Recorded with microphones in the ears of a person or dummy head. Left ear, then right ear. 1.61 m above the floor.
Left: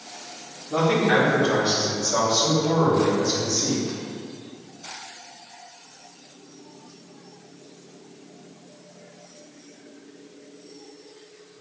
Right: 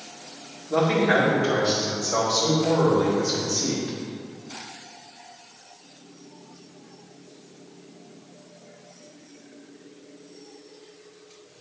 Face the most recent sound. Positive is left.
turn(degrees=-55)  # may be behind; listen again after turning